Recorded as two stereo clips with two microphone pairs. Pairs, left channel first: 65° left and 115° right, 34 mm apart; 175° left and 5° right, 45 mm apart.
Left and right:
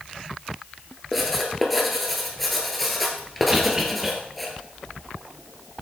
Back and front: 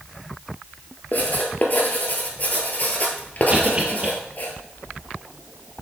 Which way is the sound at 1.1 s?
150° left.